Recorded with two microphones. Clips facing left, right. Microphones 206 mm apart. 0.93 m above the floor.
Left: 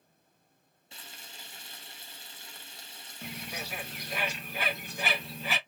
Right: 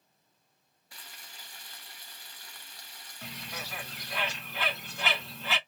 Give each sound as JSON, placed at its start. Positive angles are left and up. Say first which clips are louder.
{"t": 0.9, "sound": "frying", "louder": "left 3 dB", "side_deg": 25, "distance_m": 0.6}
{"t": 3.2, "sound": "a bird", "louder": "left 3 dB", "side_deg": 15, "distance_m": 1.6}